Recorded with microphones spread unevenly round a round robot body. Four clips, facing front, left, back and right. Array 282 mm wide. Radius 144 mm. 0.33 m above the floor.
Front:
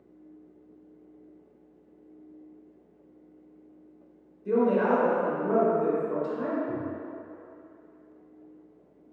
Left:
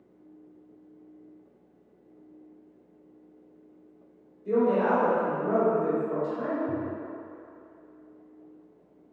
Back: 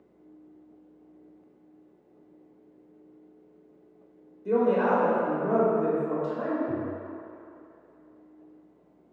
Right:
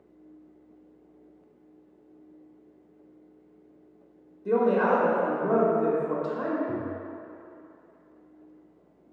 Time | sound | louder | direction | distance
4.5 | a woman speaking | right 1 dB, even | 120° right | 0.9 m
6.7 | tapping | even, back 1 dB | 130° left | 0.8 m